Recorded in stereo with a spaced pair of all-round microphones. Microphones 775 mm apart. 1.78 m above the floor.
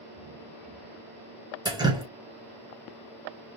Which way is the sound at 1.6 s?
5° right (ahead or behind).